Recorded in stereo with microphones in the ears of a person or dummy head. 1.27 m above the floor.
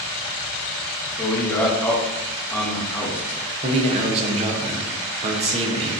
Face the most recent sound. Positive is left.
turn(degrees=-35)  # may be behind; listen again after turning